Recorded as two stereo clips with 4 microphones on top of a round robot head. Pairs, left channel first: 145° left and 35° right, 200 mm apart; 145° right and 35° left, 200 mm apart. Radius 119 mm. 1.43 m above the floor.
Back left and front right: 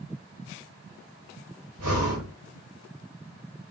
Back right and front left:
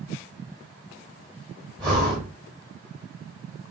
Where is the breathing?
50° right, 2 m.